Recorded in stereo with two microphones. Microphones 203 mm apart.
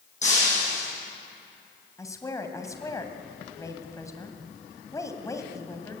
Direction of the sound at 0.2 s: 35° left (ahead or behind).